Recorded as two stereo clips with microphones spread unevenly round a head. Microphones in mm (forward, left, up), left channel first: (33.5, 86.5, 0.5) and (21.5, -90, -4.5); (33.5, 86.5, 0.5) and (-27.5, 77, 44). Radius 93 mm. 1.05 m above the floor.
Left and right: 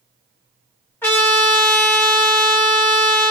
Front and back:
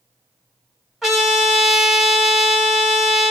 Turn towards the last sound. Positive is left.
turn(degrees=155)